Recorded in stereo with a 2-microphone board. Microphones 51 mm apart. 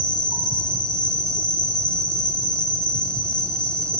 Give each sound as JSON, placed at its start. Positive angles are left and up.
{"t": 0.0, "sound": "an insect", "side_deg": 20, "distance_m": 1.0}